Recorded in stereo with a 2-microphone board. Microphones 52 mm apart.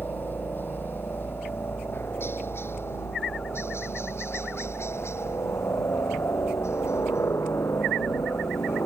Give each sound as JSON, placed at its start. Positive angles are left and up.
{"t": 0.0, "sound": "a helicopter", "side_deg": 40}